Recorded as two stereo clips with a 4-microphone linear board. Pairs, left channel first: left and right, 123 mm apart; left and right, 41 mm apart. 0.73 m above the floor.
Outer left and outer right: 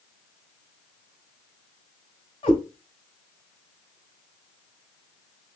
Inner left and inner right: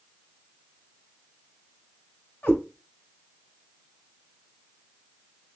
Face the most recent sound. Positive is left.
turn(degrees=45)  # may be behind; listen again after turning